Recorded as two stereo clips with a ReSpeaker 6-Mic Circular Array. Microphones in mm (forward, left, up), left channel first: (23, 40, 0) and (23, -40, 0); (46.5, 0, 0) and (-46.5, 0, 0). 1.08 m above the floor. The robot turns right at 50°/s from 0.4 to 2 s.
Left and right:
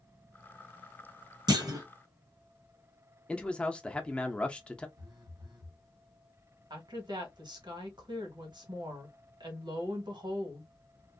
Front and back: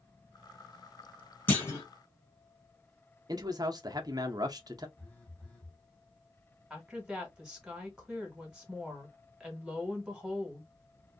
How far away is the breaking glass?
I don't hear breaking glass.